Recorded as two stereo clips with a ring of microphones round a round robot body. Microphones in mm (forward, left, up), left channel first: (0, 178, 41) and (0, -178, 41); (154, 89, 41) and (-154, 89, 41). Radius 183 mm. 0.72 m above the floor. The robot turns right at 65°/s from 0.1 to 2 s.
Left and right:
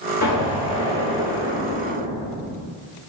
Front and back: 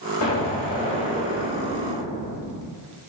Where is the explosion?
40° left, 1.4 m; by 2.7 s 155° left, 1.4 m.